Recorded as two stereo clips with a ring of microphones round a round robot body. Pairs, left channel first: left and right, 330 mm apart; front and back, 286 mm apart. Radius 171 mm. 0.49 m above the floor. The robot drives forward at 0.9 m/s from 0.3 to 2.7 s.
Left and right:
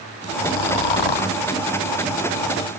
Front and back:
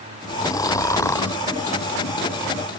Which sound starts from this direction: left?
Snoring, at 0.4 s.